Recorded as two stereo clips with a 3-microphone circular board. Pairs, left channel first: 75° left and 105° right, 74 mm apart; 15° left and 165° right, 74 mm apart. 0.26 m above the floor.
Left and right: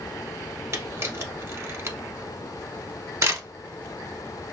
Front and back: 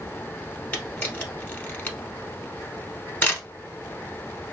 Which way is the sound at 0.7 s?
55° right.